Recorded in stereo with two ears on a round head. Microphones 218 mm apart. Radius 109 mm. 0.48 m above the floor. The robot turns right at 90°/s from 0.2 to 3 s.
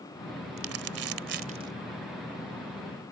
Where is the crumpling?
50° right (ahead or behind); by 1.7 s 10° right (ahead or behind).